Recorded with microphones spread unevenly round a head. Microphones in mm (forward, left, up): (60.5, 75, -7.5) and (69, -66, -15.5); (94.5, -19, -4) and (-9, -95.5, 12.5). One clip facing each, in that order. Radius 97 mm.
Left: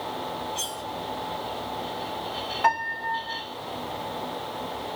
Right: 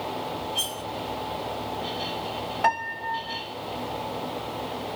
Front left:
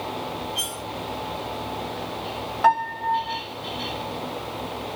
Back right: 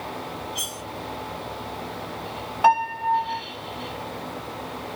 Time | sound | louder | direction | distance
0.6 | cutlery clinking | right 1 dB, front left 2 dB | 160° right | 1.7 m
2.6 | a piano | left 1 dB, back right 1 dB | 110° right | 1.8 m